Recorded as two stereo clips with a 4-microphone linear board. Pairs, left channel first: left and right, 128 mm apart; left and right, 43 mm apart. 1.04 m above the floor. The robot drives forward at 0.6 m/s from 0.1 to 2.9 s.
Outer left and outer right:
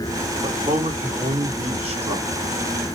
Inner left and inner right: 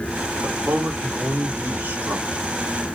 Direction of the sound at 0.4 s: 65° right (ahead or behind).